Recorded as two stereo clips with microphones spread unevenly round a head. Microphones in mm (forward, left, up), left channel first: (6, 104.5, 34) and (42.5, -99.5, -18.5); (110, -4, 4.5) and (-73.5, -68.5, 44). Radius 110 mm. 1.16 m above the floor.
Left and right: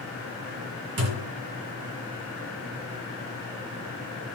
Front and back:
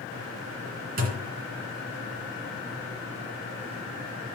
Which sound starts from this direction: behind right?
A thud, at 1.0 s.